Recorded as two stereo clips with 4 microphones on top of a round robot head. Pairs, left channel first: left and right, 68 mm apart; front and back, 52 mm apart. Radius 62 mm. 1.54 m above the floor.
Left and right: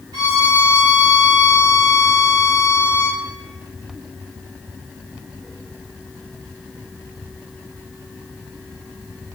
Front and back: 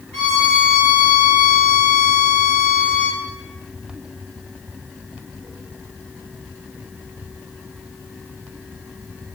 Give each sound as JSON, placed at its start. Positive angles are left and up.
{"t": 0.1, "sound": "a violin", "azimuth_deg": -65, "distance_m": 0.8}